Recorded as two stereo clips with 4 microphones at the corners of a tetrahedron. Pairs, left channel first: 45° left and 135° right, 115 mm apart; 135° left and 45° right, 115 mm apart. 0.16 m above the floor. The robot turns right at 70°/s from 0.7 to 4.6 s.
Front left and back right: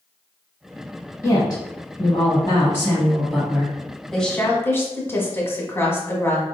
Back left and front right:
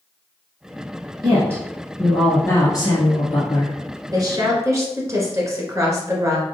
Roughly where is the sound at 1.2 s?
Ahead.